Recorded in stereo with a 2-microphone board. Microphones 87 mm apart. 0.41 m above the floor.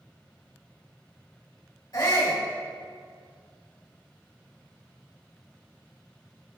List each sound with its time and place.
1.9 s a shout: 55° left (ahead or behind), 2 m